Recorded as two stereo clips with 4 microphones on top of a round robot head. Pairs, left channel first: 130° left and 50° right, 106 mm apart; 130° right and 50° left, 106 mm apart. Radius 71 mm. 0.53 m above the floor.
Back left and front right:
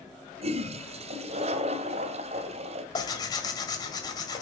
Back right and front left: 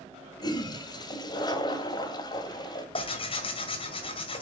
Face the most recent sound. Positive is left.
turn(degrees=-170)